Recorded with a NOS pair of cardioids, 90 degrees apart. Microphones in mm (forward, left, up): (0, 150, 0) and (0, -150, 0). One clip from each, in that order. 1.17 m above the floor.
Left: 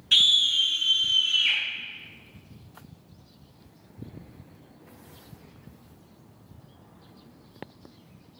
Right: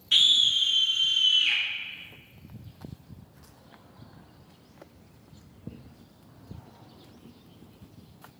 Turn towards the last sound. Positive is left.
turn(degrees=70)